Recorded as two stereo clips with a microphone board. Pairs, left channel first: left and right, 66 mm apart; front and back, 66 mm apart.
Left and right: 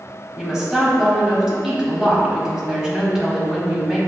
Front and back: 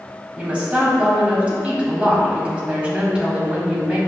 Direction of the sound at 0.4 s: 150° right.